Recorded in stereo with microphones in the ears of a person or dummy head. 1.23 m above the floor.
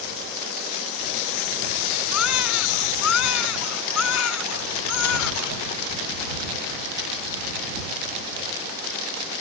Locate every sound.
2.1 s a baby crying: 75° left (ahead or behind)